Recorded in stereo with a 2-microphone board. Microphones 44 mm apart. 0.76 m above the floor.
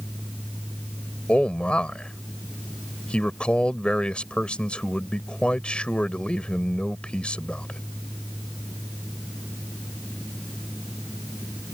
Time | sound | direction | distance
1.3 | a man speaking | 25° left (ahead or behind) | ?